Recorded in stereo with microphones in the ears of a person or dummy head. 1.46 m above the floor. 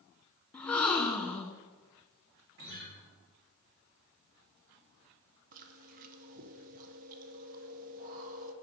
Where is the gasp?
5° left (ahead or behind), 1.0 m.